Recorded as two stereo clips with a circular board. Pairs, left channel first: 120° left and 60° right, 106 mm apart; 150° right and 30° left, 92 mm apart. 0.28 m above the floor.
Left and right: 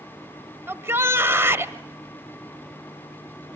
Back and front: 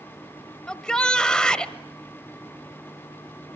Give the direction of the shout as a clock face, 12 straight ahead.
3 o'clock.